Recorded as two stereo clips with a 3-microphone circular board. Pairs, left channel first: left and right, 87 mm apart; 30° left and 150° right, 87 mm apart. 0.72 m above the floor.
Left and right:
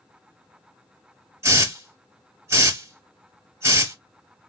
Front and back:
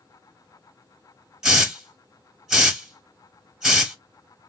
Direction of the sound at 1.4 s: 70° right.